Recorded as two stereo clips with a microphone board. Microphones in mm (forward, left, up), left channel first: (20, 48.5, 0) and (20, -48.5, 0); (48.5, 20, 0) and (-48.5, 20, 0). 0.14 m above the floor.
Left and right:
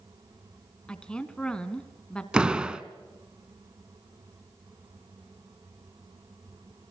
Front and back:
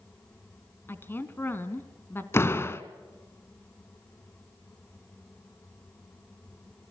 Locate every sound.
0.9 s a woman speaking: 25° left, 1.6 m
2.3 s a door slam: 20° right, 1.1 m